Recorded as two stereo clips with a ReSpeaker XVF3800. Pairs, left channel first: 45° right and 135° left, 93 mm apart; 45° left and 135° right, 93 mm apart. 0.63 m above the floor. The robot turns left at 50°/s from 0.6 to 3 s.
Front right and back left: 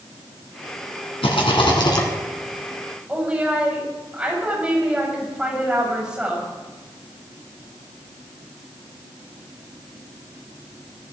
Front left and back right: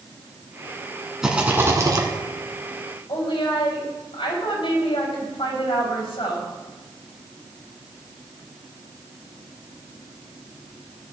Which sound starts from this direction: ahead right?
A rattle, at 1.2 s.